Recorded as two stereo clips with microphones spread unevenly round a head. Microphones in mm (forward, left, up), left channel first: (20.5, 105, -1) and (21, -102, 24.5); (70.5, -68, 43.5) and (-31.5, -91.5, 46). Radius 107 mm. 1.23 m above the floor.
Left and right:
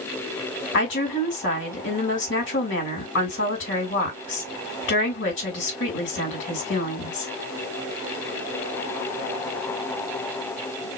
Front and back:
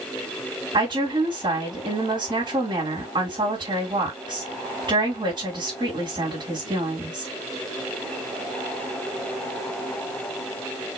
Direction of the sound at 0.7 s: 130° left.